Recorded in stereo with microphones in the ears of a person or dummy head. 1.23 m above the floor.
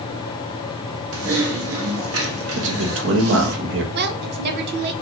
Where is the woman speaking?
60° right (ahead or behind), 0.7 m.